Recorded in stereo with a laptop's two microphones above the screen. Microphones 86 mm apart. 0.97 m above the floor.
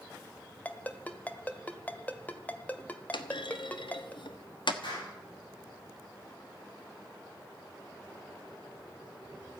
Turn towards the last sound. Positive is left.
turn(degrees=75)  # may be behind; listen again after turning